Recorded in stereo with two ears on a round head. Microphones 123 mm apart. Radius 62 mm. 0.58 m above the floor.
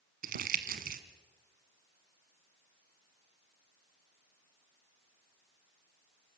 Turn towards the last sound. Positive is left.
turn(degrees=-70)  # may be behind; listen again after turning